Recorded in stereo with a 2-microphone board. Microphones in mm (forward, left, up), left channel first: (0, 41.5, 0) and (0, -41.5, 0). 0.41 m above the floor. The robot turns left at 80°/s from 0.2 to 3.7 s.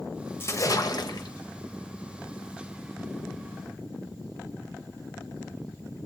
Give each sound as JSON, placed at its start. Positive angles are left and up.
{"t": 0.4, "sound": "a splash", "azimuth_deg": 145, "distance_m": 1.1}